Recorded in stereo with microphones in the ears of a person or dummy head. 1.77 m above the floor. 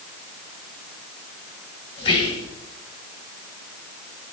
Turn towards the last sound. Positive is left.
turn(degrees=30)  # may be behind; listen again after turning